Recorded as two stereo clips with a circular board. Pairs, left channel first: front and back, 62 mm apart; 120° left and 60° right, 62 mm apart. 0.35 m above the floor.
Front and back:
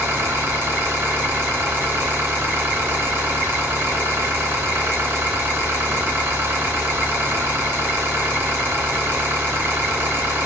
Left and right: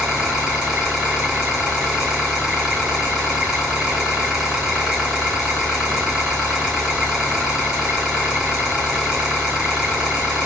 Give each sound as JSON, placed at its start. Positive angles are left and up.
{"t": 0.0, "sound": "an engine running", "azimuth_deg": -135, "distance_m": 1.7}